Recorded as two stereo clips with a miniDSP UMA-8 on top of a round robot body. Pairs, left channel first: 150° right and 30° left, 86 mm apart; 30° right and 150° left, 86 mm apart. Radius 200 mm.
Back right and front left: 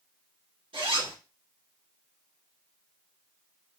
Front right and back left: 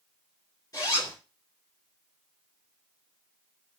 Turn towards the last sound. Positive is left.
turn(degrees=20)